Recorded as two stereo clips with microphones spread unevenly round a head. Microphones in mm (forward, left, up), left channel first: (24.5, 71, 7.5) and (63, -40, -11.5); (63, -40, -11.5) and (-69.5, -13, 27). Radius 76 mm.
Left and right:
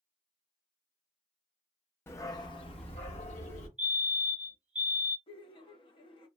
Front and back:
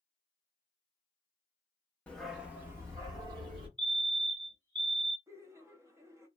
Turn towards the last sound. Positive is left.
turn(degrees=85)